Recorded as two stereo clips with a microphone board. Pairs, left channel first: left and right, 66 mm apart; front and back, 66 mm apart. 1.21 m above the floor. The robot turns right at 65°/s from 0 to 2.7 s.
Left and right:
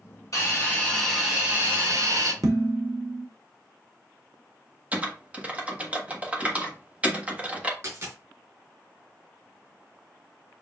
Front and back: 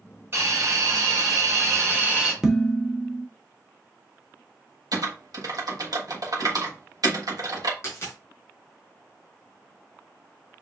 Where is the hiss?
130° left, 4 m; by 2.3 s 100° right, 4 m.